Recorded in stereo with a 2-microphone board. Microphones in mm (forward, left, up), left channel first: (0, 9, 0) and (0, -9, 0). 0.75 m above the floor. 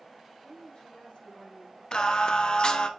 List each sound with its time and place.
0.4 s a woman speaking: 65° left (ahead or behind), 4 m
1.9 s singing: 50° left (ahead or behind), 0.7 m